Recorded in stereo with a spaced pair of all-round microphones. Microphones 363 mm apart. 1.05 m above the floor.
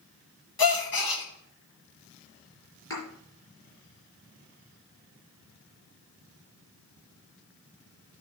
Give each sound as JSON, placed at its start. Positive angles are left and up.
{"t": 0.6, "sound": "a gasp", "side_deg": 85, "distance_m": 1.1}
{"t": 2.9, "sound": "a thud", "side_deg": 40, "distance_m": 4.5}